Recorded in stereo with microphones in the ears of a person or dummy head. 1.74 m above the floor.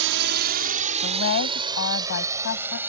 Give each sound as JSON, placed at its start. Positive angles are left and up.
{"t": 0.0, "sound": "a drone", "side_deg": -70}
{"t": 1.0, "sound": "a woman speaking", "side_deg": 65}